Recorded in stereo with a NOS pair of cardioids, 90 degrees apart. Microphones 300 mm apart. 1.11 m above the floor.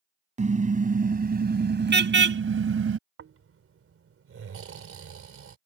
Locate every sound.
0.4 s a car horn: 25° right; by 3.0 s 50° right
3.2 s snoring: 45° right